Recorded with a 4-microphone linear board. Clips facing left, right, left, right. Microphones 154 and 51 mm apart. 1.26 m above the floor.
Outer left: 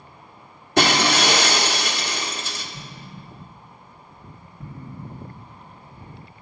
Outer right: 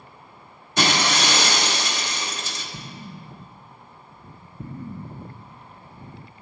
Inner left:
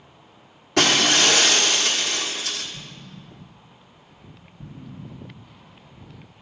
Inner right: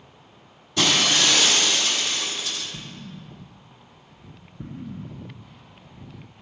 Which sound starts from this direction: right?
An explosion, at 2.7 s.